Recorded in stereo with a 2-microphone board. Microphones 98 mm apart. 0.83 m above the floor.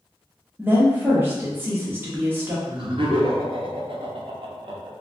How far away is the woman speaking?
About 1.0 m.